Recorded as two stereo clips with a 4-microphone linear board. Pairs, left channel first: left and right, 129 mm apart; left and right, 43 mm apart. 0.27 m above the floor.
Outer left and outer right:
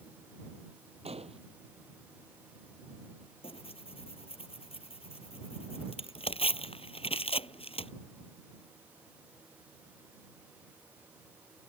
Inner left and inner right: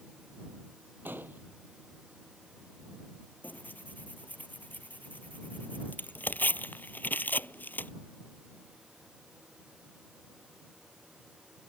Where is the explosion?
50° right (ahead or behind).